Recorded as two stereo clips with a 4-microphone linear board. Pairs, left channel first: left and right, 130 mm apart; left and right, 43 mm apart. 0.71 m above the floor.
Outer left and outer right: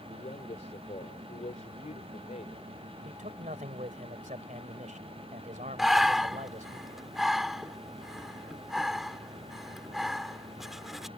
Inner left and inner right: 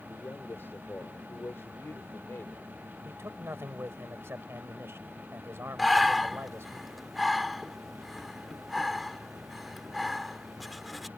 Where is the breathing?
Centre (ahead or behind).